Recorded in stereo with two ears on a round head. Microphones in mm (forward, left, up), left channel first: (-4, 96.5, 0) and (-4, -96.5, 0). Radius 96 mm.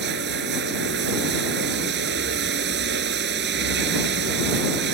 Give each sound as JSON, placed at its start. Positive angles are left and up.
{"t": 0.0, "sound": "running water", "side_deg": -55}